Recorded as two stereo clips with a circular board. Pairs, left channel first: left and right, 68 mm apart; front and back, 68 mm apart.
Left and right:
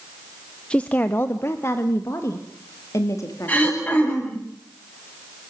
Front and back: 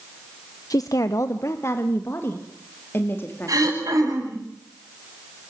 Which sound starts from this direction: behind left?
Throat clearing, at 3.5 s.